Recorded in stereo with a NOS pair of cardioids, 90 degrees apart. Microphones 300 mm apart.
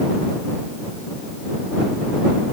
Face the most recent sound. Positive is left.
No sound to turn to.